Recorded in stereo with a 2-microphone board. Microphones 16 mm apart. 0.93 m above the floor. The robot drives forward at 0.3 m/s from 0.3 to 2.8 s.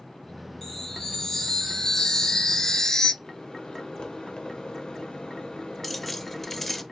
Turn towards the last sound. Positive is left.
turn(degrees=10)  # may be behind; listen again after turning